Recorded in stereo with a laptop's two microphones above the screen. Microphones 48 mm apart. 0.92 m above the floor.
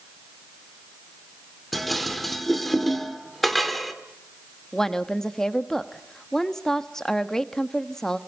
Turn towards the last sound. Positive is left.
turn(degrees=10)  # may be behind; listen again after turning